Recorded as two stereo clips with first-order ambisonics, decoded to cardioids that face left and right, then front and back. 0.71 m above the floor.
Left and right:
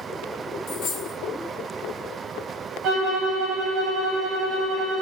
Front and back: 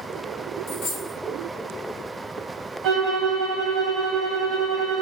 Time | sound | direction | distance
0.7 | a dropped coin | 45° left | 1.4 m
2.8 | a violin | 135° right | 0.9 m